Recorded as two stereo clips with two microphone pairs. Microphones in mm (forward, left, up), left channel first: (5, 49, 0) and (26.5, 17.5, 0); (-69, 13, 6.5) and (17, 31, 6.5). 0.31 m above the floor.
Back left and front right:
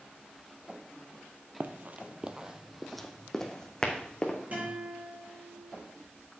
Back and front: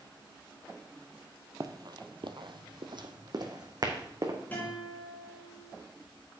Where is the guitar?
100° right, 4 m.